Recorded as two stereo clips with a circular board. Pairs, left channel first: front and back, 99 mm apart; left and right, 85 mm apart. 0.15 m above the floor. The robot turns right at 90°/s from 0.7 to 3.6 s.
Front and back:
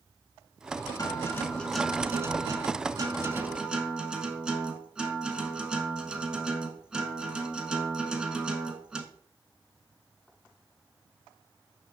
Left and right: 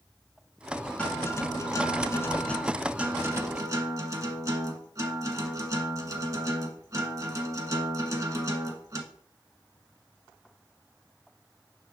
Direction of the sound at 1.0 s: 20° left.